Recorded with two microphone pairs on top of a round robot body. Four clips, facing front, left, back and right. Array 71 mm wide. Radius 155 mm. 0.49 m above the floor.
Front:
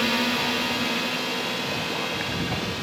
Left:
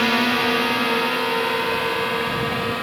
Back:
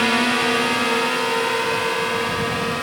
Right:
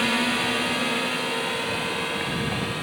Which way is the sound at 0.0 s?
145° left.